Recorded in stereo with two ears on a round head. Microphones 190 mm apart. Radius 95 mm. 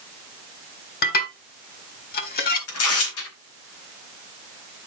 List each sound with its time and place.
1.0 s dishes clattering: 45° left (ahead or behind), 1.8 m
2.7 s tearing paper: 75° left (ahead or behind), 3 m